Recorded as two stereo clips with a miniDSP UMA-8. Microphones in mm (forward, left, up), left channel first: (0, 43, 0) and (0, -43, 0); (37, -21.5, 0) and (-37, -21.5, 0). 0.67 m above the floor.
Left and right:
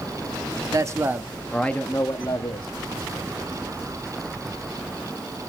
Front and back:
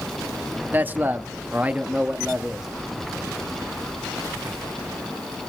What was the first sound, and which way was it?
A man speaking, 120° right.